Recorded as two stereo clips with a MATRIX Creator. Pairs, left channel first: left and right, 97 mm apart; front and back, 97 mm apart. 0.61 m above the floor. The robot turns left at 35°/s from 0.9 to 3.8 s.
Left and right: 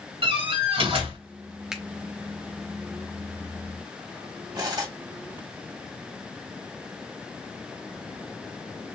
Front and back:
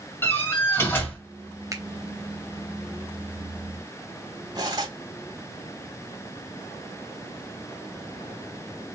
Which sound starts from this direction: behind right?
Cutlery clinking, at 4.5 s.